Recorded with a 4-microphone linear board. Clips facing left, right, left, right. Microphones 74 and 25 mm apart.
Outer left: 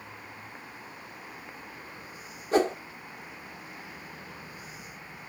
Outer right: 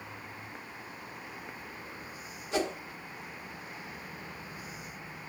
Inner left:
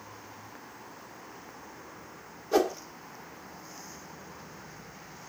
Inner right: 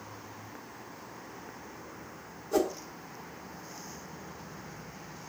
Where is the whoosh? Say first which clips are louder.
Outer left 7 dB, inner left 3 dB; 40° left (ahead or behind), 1.2 m.